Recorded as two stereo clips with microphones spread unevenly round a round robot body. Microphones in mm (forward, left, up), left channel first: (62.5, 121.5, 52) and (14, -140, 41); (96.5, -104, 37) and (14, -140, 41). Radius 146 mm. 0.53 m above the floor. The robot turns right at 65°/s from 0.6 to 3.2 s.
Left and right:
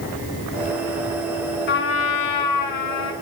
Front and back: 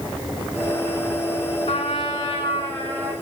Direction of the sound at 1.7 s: 30° left.